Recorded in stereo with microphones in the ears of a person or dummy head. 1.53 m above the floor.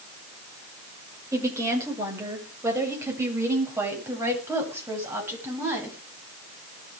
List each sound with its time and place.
1.3 s a woman speaking: 15° right (ahead or behind), 6 m; by 6.0 s 10° right (ahead or behind), 10 m